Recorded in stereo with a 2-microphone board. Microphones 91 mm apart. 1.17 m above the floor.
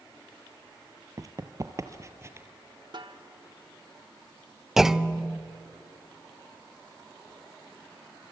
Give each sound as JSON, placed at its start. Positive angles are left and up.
{"t": 1.2, "sound": "running footsteps", "side_deg": -40, "distance_m": 1.4}
{"t": 2.9, "sound": "a snare drum", "side_deg": -55, "distance_m": 1.2}
{"t": 4.8, "sound": "a clunk", "side_deg": -5, "distance_m": 0.6}